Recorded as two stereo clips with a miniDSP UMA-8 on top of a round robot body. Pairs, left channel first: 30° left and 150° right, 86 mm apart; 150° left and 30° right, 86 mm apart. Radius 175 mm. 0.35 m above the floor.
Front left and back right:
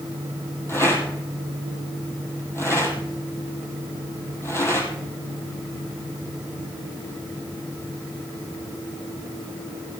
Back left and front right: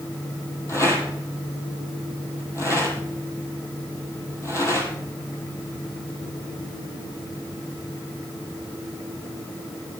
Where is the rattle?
90° left, 2.5 m.